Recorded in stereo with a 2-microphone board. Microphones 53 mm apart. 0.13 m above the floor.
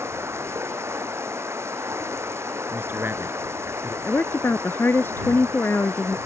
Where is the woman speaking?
45° left (ahead or behind).